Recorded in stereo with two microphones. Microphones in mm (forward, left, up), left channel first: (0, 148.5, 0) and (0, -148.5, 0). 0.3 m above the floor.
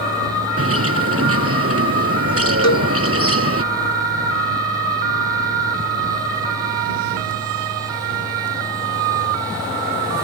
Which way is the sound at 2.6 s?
65° left (ahead or behind).